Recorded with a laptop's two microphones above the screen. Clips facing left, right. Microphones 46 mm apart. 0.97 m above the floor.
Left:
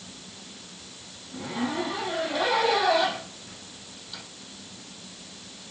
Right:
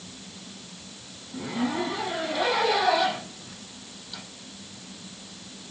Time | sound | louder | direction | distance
1.3 | a zipper | right 1 dB | 5° left (ahead or behind) | 5 m